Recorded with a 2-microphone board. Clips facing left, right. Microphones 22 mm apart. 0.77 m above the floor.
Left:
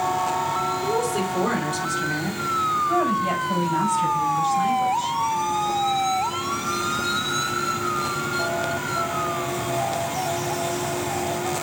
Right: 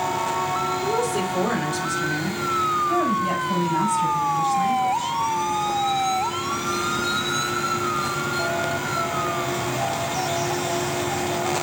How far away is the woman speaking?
About 4 m.